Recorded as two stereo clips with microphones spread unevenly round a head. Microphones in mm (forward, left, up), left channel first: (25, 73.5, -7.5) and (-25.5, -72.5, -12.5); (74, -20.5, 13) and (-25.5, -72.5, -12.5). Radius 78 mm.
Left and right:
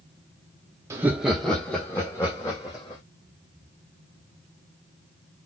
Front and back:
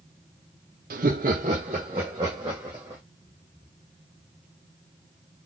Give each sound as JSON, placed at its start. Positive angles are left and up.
{"t": 0.9, "sound": "laughter", "azimuth_deg": 175, "distance_m": 0.6}